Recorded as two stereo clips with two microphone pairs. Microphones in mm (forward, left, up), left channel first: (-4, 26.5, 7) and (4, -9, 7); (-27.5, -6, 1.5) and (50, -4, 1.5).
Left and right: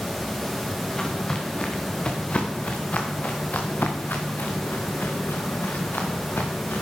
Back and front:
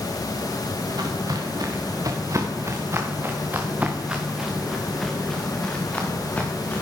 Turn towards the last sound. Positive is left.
turn(degrees=115)